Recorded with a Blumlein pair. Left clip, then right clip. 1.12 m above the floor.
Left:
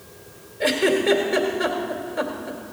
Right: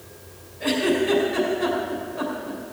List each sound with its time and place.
0.6 s a giggle: 65° left, 2.5 m